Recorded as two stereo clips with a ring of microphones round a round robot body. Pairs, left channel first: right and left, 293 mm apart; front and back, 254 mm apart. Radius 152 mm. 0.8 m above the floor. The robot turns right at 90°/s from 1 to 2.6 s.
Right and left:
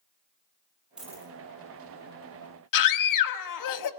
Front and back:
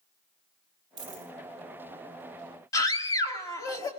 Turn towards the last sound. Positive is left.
turn(degrees=-80)